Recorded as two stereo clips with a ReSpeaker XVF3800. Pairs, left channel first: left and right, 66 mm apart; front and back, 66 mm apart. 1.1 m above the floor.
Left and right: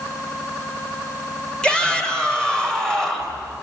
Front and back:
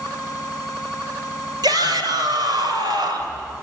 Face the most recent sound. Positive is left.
turn(degrees=175)